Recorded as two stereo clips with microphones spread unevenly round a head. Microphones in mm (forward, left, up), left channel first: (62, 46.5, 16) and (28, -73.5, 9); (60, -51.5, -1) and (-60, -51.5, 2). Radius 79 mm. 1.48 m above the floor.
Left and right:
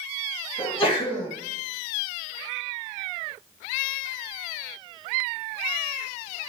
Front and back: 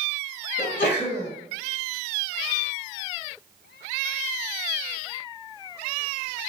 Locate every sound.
0.6 s a sneeze: 30° left, 1.8 m